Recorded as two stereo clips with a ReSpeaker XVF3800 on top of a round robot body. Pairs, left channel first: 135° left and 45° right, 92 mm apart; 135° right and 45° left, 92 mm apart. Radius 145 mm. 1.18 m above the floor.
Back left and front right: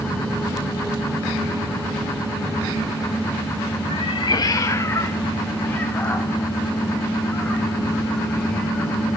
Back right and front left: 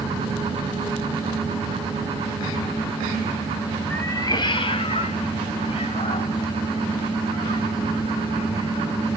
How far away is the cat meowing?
About 0.5 m.